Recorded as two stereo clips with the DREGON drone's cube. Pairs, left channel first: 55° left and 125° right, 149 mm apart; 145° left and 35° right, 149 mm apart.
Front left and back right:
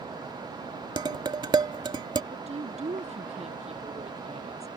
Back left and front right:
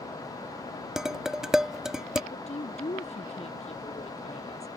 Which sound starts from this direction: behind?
A woman speaking, at 2.3 s.